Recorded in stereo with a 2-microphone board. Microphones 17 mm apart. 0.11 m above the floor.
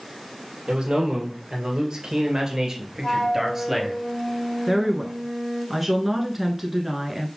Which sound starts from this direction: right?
A man speaking, at 0.7 s.